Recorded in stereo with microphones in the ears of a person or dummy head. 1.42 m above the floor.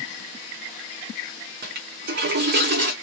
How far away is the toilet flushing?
About 0.9 m.